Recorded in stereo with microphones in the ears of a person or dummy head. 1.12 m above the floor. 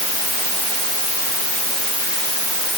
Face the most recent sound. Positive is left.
No sound to turn to.